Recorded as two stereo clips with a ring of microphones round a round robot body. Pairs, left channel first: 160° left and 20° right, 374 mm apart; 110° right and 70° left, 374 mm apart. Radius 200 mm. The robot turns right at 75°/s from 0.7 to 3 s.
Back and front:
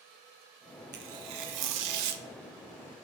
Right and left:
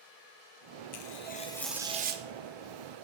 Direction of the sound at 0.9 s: 80° right.